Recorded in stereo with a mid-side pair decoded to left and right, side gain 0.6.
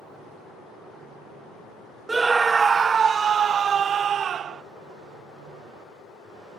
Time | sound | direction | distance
2.1 | a scream | 15° right | ?